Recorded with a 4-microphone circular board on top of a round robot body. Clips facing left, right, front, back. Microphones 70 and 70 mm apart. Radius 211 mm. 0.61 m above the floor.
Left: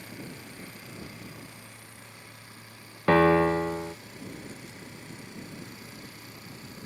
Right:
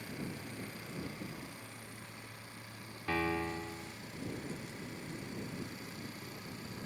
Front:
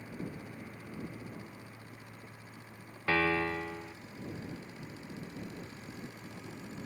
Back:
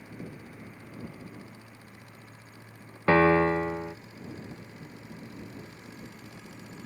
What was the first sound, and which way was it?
A piano, 125° left.